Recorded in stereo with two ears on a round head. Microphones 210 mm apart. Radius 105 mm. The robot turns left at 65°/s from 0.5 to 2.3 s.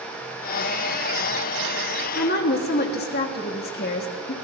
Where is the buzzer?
No buzzer in this recording.